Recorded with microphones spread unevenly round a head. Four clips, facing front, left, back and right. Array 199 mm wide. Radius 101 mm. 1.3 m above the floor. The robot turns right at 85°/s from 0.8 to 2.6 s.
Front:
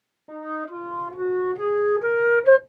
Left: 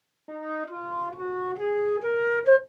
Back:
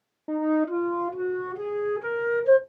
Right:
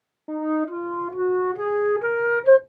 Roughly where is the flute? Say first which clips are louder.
Right 9 dB, back 8 dB; behind right.